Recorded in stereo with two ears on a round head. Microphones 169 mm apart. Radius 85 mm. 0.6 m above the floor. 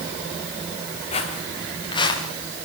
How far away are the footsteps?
About 5 m.